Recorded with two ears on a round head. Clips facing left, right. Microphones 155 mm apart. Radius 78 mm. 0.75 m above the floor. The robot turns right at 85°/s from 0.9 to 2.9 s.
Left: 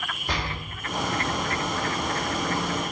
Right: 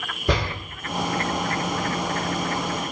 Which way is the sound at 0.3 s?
65° right (ahead or behind).